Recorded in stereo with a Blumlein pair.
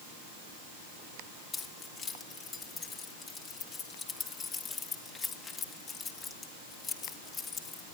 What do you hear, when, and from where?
1.5 s keys jangling: 20° left, 2.5 m